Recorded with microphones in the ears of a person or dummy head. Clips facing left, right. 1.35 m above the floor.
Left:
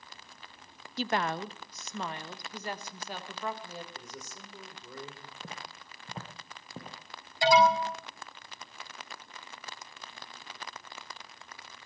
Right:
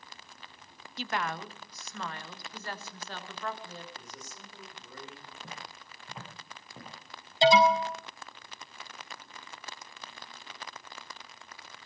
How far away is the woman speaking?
About 0.5 m.